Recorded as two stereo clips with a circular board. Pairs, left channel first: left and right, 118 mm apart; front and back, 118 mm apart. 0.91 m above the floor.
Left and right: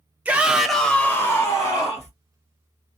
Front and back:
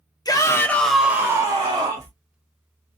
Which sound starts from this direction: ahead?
A shout, at 0.2 s.